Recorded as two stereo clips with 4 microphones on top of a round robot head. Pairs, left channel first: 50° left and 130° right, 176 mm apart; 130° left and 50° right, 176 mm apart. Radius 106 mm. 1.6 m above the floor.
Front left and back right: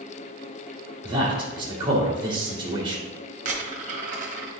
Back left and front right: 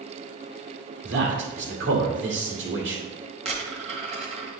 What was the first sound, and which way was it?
A man speaking, 65° right.